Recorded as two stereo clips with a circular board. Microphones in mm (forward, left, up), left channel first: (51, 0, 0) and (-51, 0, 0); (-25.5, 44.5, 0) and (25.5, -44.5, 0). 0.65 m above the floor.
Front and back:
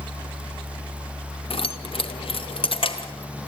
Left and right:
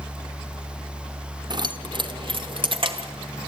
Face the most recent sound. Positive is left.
turn(degrees=-30)